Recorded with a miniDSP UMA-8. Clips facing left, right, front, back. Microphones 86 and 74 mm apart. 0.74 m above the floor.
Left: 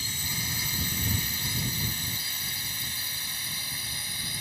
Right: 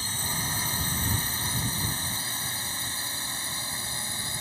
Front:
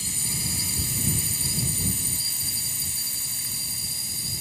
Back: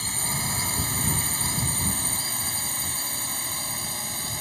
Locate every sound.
0.0 s a drone: 145° right; by 4.4 s 150° right